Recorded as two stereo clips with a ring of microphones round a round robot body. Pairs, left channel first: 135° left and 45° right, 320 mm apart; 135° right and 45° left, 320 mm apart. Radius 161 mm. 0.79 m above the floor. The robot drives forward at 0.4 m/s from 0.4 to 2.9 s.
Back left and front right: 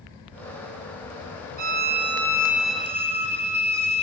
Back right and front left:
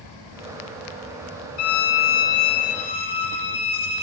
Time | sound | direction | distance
1.6 | a violin | 105° right | 0.8 m